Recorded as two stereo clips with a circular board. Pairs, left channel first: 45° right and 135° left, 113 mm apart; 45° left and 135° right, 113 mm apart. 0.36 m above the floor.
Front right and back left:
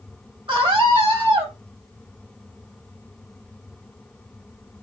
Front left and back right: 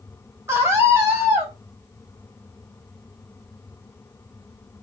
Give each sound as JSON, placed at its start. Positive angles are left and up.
{"t": 0.5, "sound": "a scream", "azimuth_deg": 160, "distance_m": 2.5}